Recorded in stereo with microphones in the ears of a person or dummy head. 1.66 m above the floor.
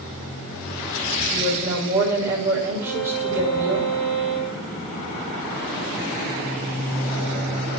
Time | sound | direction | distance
1.3 | a woman speaking | 10° right (ahead or behind) | 6.5 m
2.8 | a violin | 5° right (ahead or behind) | 8 m